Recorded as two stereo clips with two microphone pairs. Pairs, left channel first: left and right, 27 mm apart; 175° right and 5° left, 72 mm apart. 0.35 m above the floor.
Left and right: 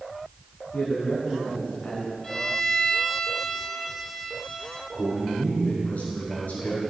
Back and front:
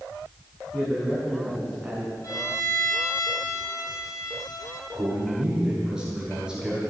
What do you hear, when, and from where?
0.7 s a man speaking: 85° left, 4.5 m
2.2 s a violin: 165° left, 2 m
4.9 s a man speaking: 85° left, 5.5 m